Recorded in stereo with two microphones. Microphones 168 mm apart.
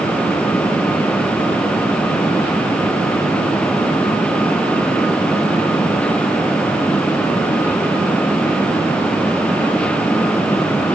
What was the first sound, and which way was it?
Only background noise.